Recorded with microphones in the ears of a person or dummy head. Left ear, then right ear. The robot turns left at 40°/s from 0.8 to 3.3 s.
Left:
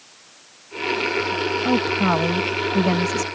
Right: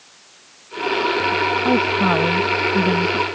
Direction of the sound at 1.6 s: 165° right.